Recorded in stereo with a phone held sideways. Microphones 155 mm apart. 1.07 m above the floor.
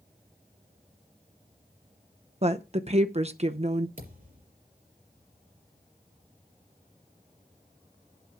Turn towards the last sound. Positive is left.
turn(degrees=-65)  # may be behind; listen again after turning